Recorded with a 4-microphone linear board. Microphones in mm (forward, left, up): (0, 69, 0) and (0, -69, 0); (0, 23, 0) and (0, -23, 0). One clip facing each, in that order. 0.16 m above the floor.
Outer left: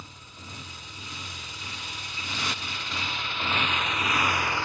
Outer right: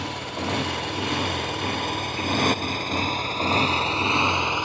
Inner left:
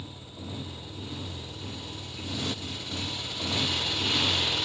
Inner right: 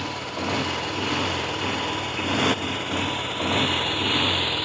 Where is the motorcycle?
80° right; by 4.6 s 20° right (ahead or behind).